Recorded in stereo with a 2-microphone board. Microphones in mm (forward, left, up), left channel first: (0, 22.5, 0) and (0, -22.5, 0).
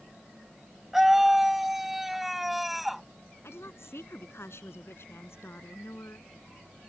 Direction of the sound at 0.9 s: 10° right (ahead or behind).